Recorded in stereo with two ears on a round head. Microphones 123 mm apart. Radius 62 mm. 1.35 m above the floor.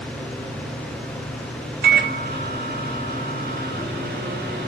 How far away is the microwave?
About 0.6 m.